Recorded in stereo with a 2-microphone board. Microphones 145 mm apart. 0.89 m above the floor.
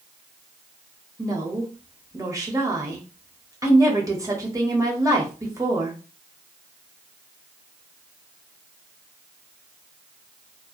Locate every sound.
1.2 s a woman speaking: 25° right (ahead or behind), 0.6 m